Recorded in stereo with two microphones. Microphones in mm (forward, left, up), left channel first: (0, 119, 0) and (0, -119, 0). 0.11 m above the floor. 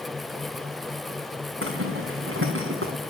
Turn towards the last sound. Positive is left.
turn(degrees=-60)  # may be behind; listen again after turning